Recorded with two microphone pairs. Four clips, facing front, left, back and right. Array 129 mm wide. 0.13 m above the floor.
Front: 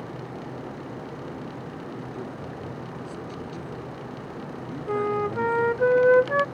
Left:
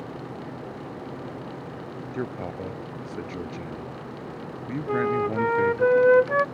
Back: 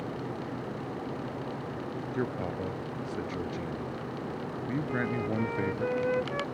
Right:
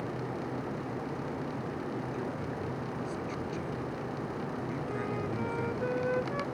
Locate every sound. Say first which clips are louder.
2.1 s a man speaking: left 4 dB, back 3 dB; 120° left
4.9 s a flute: left 14 dB, front 10 dB; 50° left